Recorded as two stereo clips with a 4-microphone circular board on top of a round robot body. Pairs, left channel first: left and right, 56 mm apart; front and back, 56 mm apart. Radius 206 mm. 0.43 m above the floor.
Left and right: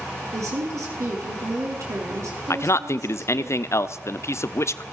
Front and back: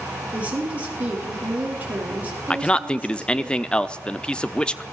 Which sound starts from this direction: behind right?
A woman speaking, at 0.3 s.